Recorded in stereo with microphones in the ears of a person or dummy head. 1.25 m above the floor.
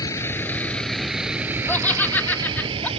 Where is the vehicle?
20° left (ahead or behind); by 3.0 s 30° right (ahead or behind).